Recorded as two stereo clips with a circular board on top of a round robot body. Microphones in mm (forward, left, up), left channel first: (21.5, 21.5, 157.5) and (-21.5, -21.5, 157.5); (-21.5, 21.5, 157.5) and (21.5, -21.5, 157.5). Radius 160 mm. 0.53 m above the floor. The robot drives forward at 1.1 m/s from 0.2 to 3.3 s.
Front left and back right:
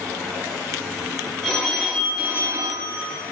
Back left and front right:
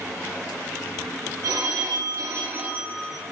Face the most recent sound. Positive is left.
turn(degrees=-140)